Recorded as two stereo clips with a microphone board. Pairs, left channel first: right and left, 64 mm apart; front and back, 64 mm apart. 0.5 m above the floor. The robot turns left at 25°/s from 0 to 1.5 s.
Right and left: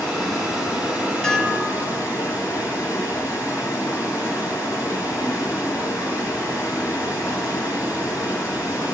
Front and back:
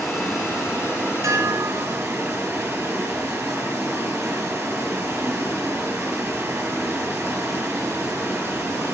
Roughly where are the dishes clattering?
Behind.